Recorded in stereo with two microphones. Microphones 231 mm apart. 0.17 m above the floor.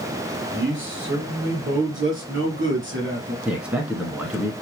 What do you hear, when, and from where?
0.5 s a man speaking: 55° right (ahead or behind), 3 m
3.5 s a man speaking: 5° right (ahead or behind), 2 m